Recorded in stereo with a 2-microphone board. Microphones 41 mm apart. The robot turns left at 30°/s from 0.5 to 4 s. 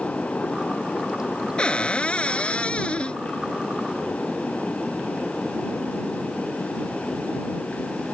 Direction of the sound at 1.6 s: 25° left (ahead or behind).